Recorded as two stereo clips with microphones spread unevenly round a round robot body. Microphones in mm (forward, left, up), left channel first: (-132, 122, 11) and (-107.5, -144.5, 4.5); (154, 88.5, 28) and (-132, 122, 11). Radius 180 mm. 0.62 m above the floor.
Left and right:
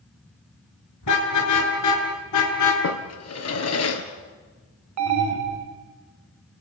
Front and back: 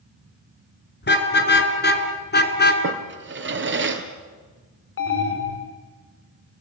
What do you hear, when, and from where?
1.0 s a car horn: 45° left, 4 m; by 2.7 s 50° left, 3 m
2.8 s a drawer: 125° left, 3 m
5.0 s an alarm: 60° right, 1.7 m